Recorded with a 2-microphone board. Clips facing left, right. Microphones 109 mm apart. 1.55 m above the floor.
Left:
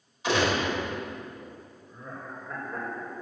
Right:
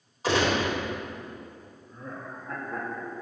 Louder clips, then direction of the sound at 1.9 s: Right 1 dB; 65° right (ahead or behind).